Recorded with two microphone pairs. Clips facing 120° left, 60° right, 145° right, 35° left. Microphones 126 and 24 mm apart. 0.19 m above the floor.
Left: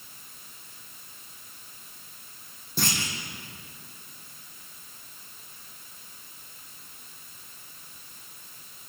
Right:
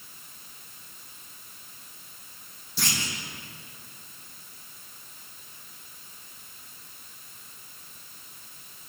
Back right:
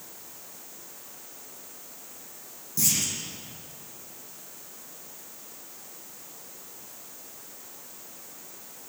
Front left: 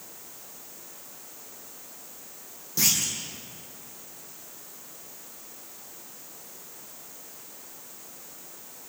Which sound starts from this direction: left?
A clunk, at 2.8 s.